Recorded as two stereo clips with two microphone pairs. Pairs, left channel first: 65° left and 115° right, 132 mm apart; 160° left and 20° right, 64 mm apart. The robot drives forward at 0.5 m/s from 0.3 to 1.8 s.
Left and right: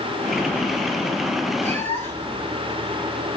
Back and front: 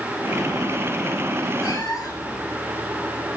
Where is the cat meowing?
145° left, 2 m.